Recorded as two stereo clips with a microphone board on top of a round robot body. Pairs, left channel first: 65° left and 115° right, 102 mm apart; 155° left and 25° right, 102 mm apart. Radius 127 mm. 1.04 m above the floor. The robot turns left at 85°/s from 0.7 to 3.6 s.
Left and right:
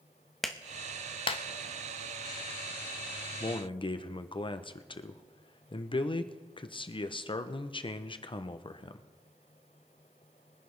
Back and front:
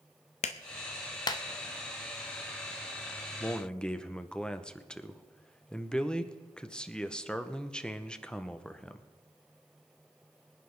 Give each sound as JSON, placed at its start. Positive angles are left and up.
{"t": 0.4, "sound": "a clap", "azimuth_deg": 155, "distance_m": 0.8}
{"t": 3.4, "sound": "a man speaking", "azimuth_deg": 95, "distance_m": 1.2}